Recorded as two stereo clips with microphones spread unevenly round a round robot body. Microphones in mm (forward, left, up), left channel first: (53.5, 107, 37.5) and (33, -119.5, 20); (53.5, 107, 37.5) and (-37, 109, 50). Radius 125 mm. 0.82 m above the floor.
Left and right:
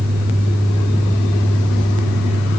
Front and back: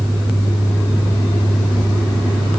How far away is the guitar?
I don't hear a guitar.